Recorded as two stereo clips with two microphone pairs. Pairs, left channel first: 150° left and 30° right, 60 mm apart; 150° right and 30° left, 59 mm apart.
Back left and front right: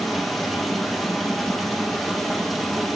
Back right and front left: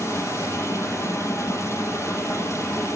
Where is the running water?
120° right, 3.5 m.